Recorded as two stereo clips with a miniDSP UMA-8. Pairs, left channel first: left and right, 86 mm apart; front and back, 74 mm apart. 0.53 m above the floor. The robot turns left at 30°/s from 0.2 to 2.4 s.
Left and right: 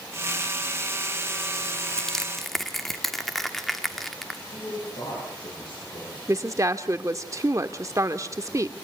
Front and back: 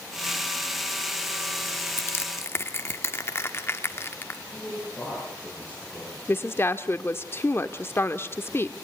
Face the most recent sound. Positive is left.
turn(degrees=-50)